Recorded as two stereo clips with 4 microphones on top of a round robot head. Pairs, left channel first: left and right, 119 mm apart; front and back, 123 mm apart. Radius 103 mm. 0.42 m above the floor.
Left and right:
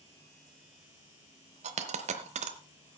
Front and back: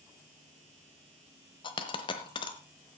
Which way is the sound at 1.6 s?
55° right.